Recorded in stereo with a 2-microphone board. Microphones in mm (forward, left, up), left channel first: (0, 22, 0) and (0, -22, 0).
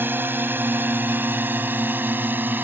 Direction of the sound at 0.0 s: 50° right (ahead or behind).